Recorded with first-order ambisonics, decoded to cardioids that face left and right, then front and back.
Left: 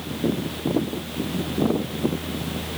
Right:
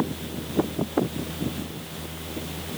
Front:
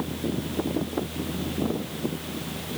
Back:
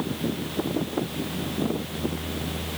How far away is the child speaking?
I don't hear a child speaking.